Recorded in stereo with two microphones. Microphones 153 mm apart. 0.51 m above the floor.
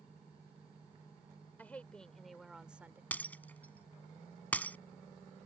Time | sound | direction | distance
1.6 | a woman speaking | 10° left (ahead or behind) | ?
3.1 | breaking glass | 10° left (ahead or behind) | ?